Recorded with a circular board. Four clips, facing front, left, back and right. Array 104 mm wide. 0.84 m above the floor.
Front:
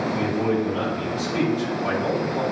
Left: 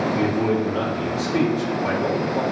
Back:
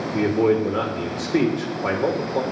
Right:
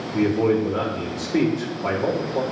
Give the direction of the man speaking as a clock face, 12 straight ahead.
5 o'clock.